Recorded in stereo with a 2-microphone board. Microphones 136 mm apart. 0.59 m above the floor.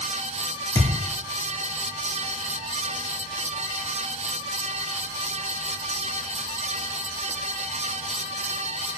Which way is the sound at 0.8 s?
25° left (ahead or behind).